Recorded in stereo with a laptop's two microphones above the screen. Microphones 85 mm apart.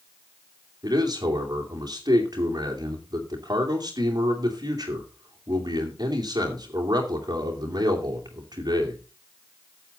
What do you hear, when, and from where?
0.8 s a man speaking: 50° right (ahead or behind), 2.5 m